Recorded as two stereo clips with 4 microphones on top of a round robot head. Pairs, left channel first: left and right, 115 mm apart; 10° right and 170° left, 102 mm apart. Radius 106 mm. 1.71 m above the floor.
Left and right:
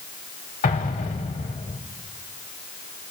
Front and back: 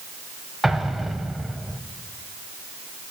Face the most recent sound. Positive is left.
turn(degrees=80)